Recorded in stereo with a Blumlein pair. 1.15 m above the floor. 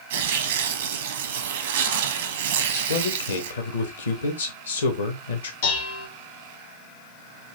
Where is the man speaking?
65° left, 1.2 m.